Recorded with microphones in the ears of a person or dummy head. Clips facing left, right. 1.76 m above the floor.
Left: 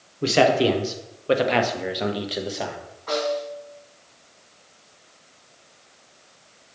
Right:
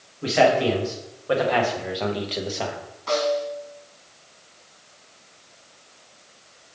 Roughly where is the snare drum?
Right.